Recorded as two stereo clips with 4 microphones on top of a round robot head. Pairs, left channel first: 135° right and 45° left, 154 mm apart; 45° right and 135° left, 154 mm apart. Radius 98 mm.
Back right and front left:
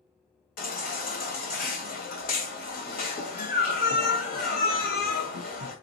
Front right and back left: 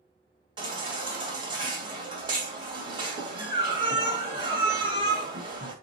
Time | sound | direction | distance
0.6 | a baby crying | 165° right | 2 m